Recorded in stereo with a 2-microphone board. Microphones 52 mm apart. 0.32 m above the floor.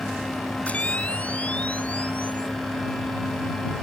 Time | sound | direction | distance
0.7 | a camera shutter | 25° left (ahead or behind) | ?